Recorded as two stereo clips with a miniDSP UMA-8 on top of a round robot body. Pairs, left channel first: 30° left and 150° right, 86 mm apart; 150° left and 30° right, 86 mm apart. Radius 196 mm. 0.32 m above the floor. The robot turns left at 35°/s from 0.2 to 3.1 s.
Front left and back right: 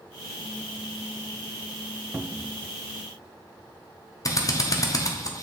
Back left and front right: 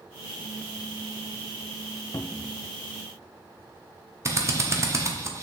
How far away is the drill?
About 1.2 m.